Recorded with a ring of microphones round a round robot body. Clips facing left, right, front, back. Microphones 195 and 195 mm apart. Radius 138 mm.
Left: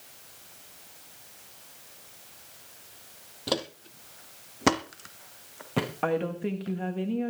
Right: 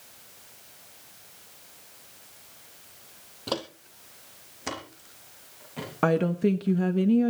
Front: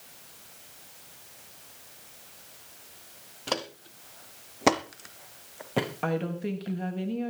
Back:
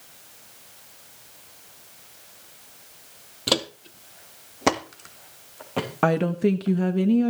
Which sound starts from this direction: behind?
Footsteps, at 3.5 s.